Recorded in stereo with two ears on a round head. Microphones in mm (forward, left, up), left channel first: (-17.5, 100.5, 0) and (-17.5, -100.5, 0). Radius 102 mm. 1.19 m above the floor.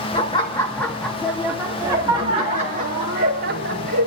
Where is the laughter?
25° left (ahead or behind), 1.7 m; by 4.1 s 45° right (ahead or behind), 2.5 m.